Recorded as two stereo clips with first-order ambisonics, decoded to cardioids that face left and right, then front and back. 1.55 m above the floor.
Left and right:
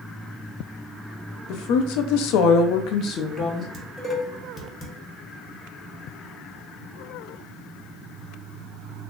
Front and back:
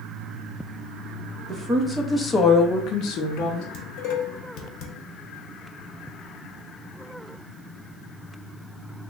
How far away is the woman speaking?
About 0.8 m.